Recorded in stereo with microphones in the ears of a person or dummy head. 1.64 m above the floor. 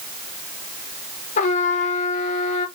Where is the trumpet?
45° left (ahead or behind), 0.9 m.